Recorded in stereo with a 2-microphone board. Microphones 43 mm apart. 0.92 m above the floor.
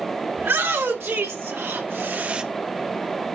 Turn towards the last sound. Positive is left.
turn(degrees=-15)  # may be behind; listen again after turning